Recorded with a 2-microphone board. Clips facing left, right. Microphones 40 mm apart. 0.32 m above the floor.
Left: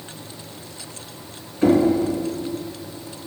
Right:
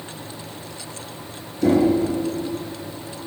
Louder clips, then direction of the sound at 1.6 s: Left 1 dB; 35° left (ahead or behind).